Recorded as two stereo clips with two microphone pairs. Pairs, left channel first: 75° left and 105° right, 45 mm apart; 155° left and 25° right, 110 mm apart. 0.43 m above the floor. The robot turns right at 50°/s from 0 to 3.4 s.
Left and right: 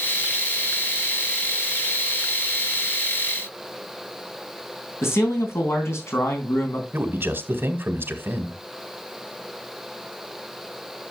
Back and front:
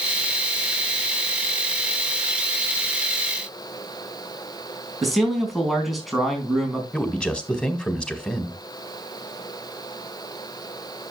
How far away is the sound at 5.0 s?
About 3.5 m.